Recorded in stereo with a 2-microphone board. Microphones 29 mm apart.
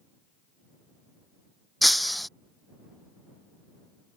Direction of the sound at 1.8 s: Centre (ahead or behind).